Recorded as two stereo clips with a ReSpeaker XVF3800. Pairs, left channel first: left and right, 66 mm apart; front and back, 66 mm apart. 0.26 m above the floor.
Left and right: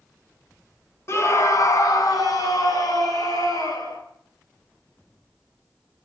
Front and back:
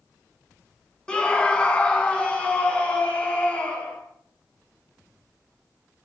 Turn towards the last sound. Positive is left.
turn(degrees=70)